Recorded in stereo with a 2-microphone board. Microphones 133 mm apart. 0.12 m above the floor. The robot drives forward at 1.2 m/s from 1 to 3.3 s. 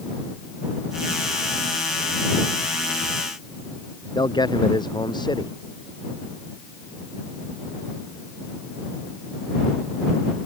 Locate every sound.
4.2 s a man speaking: 30° left (ahead or behind)